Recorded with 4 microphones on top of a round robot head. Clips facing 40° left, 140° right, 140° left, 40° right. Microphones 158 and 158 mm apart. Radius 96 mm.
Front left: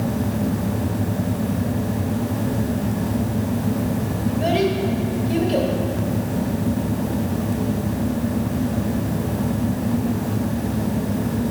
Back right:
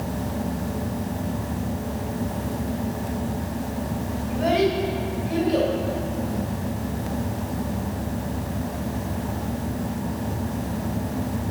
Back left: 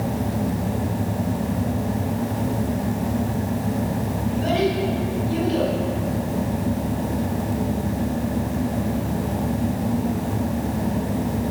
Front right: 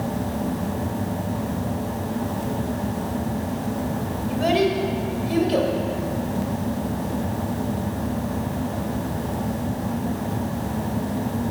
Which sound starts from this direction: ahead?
A child speaking, at 4.3 s.